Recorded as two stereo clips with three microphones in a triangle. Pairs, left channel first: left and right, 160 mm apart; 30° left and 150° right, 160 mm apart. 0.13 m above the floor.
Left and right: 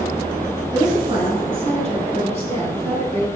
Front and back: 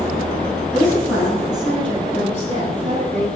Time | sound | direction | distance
0.7 | a woman speaking | 75° right | 1.5 m